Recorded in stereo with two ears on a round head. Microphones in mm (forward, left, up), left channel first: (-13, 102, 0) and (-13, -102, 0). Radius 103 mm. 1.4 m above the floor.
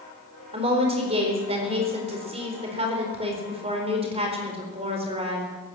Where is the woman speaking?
30° right (ahead or behind), 4.5 m.